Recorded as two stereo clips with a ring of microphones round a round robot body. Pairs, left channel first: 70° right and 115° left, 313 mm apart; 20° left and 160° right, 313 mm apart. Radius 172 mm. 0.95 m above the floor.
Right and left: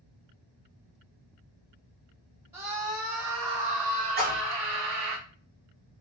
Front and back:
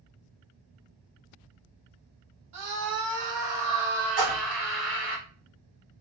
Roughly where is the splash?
Behind.